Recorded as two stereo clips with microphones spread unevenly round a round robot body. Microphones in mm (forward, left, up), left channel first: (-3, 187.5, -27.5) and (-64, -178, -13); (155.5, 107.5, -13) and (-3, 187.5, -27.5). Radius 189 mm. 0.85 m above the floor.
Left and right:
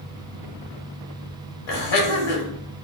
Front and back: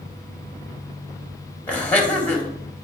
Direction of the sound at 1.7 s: 55° left.